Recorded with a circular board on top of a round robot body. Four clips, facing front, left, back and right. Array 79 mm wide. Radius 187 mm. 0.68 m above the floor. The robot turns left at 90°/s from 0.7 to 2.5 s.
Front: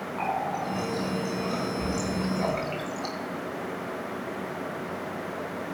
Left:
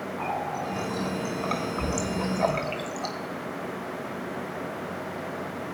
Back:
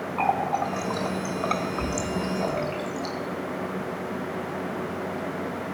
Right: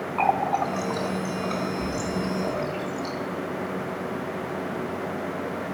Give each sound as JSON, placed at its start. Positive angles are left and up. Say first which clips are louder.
{"t": 0.2, "sound": "a running tap", "louder": "right 9 dB, back 5 dB", "azimuth_deg": -115, "distance_m": 1.2}